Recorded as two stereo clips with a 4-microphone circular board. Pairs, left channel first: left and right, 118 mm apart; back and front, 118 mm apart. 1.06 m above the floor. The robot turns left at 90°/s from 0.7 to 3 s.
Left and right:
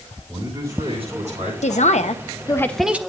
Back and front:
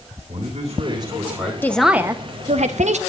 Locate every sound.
0.3 s a man speaking: 25° right, 9 m; by 1.5 s 100° right, 9 m
1.6 s a man speaking: 110° left, 0.9 m; by 3.0 s 15° right, 0.9 m